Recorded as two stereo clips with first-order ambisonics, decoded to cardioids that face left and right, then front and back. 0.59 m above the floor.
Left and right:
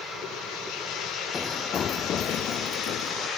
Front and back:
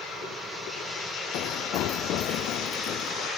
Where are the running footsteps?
20° left; by 3.3 s 45° left.